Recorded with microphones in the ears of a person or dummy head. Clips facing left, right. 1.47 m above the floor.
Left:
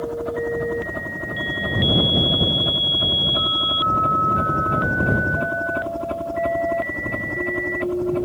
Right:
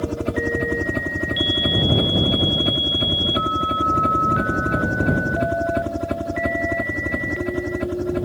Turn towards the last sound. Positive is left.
turn(degrees=-15)  # may be behind; listen again after turning